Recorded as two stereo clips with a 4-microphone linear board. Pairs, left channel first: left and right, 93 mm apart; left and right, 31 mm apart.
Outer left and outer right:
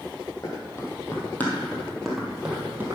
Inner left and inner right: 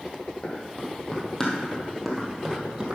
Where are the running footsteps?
35° left (ahead or behind), 2.5 m; by 3.0 s 25° right (ahead or behind), 1.8 m.